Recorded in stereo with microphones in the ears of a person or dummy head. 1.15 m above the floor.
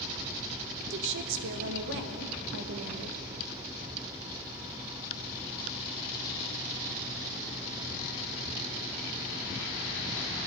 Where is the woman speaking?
65° right (ahead or behind), 1.0 m.